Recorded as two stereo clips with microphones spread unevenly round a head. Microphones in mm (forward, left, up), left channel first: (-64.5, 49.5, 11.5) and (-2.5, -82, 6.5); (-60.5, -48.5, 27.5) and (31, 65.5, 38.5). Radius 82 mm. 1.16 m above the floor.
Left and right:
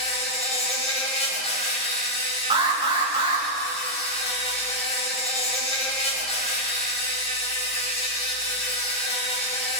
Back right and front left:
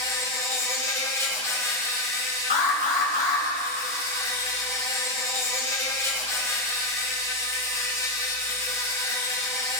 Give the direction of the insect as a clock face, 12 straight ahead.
7 o'clock.